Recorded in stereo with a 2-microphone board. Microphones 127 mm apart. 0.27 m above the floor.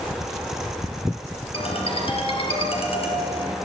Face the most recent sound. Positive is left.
turn(degrees=50)  # may be behind; listen again after turning